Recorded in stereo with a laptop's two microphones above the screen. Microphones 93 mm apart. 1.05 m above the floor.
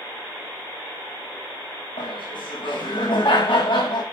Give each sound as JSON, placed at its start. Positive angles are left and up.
{"t": 2.0, "sound": "laughter", "side_deg": 75, "distance_m": 7.0}